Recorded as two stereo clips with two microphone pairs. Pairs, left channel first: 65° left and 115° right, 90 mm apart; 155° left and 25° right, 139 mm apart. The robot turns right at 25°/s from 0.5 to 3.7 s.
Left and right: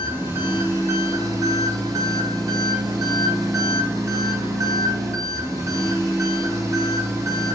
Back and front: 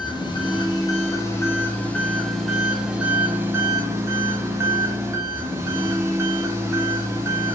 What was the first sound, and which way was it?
An engine running, 165° right.